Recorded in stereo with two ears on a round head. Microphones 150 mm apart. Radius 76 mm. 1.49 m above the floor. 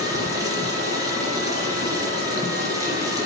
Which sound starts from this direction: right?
Running water, at 0.0 s.